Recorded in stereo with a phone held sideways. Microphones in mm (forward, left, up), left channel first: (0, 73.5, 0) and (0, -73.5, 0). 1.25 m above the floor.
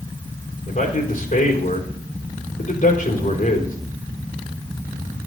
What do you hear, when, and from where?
0.7 s a man speaking: 65° left (ahead or behind), 3.5 m